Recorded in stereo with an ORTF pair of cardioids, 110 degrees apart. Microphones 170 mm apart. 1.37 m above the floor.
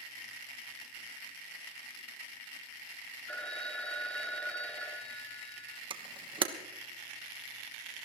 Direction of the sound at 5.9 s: 30° right.